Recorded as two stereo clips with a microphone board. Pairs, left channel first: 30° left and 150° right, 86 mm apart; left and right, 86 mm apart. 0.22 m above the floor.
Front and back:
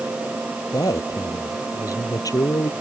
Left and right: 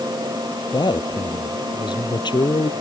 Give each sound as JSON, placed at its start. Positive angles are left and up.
{"t": 0.7, "sound": "a man speaking", "azimuth_deg": 70}